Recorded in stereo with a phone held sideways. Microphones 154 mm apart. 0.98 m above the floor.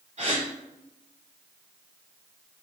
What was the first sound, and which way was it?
A gasp, 50° right (ahead or behind).